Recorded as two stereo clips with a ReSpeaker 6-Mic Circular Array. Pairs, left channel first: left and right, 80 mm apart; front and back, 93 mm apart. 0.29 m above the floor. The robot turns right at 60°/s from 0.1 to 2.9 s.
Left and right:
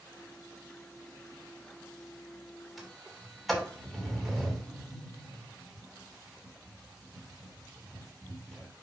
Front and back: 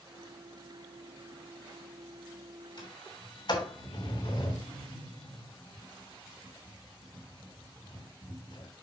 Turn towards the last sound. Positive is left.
turn(degrees=0)